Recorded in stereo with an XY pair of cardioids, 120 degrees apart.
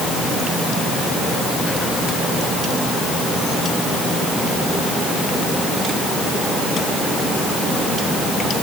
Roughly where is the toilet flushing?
No toilet flushing in this recording.